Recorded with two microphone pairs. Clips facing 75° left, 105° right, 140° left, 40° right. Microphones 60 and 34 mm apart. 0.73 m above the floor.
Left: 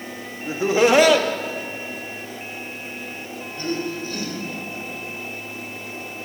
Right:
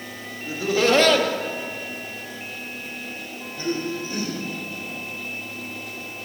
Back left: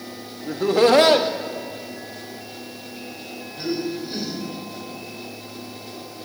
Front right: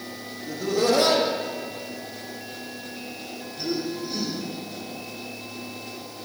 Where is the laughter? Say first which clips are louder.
Left 3 dB, back left 6 dB; 115° left, 0.9 m; by 4.4 s 165° right, 3 m.